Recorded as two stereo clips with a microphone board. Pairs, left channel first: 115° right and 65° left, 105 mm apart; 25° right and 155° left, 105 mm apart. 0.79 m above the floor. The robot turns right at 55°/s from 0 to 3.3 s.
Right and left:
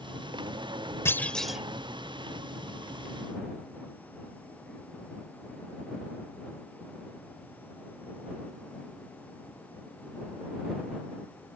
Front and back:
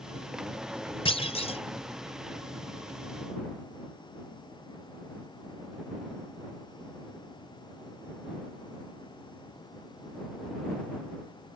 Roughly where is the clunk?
Ahead right.